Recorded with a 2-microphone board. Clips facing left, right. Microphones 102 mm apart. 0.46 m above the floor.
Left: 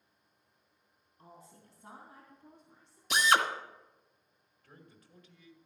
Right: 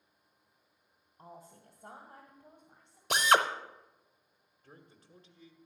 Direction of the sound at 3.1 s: 50° right (ahead or behind).